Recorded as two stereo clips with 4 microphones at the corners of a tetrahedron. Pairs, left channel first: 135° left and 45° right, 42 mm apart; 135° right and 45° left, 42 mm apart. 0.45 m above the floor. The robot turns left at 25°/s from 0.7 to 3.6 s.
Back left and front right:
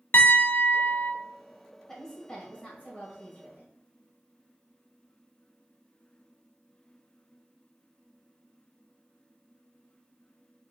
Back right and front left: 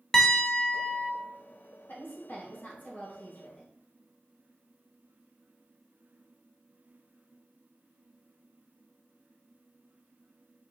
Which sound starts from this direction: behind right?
A woman speaking, at 1.9 s.